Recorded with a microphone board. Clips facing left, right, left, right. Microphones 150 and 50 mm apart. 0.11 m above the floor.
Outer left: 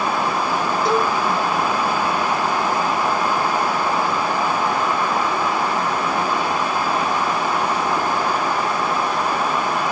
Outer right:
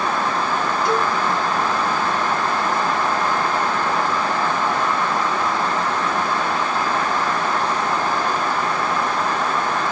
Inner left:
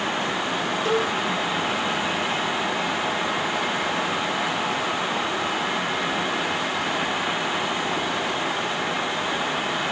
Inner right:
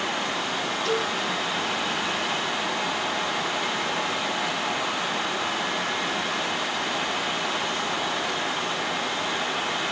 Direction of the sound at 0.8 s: 30° left (ahead or behind).